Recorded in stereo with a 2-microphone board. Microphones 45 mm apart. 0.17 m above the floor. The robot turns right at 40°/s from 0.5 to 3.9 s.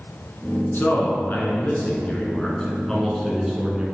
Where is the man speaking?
80° left, 1.5 m; by 3.9 s 155° right, 1.5 m.